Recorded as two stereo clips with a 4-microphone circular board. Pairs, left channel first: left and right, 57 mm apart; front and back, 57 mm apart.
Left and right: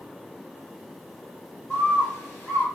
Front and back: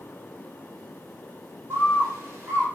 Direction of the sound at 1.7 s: 135° left.